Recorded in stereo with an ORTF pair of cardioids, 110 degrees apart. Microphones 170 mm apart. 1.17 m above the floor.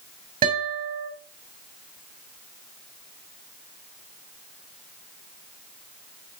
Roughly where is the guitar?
Ahead right.